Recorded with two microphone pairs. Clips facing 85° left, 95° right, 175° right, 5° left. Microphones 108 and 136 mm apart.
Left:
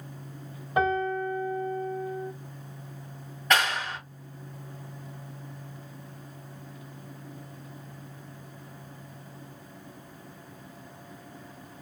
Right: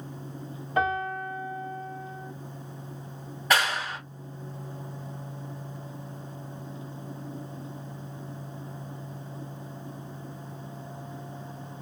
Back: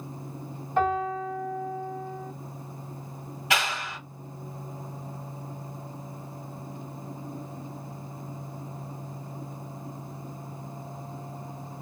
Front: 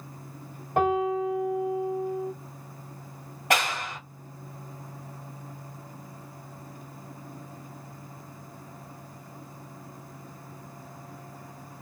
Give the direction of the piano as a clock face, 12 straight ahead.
11 o'clock.